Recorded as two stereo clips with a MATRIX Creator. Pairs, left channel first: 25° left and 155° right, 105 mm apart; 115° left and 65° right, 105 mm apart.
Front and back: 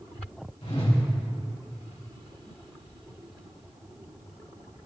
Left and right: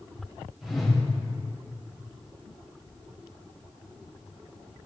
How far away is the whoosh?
About 3.5 m.